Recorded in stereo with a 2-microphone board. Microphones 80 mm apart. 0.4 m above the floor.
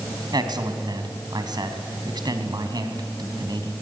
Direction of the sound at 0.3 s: 60° right (ahead or behind).